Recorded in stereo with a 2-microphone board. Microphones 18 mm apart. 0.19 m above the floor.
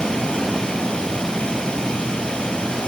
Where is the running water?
50° left (ahead or behind), 1.9 m.